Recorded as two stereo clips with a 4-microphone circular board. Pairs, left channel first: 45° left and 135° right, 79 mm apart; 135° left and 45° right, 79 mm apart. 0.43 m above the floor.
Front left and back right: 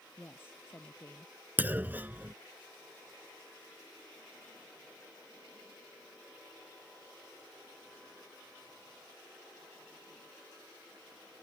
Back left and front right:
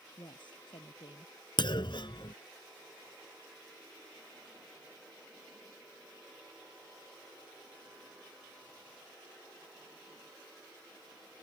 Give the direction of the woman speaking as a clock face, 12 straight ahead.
8 o'clock.